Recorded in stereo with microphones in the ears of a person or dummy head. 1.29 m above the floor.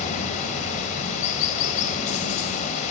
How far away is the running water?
About 6 m.